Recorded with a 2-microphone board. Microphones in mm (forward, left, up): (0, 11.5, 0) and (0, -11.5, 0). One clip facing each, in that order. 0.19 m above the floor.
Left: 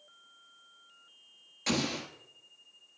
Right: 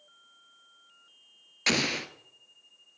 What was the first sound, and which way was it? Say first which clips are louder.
An explosion: right 5 dB; 40° right (ahead or behind).